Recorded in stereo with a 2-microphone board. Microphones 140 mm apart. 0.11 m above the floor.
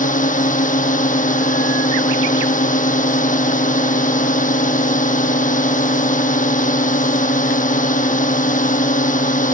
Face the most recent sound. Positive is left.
turn(degrees=70)  # may be behind; listen again after turning